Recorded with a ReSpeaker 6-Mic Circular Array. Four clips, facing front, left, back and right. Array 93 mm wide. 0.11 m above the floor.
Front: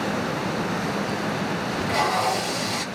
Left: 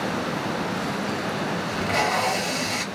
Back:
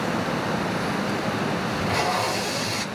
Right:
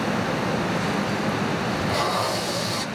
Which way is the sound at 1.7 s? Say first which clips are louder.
Left 3 dB, front 3 dB; 90° left.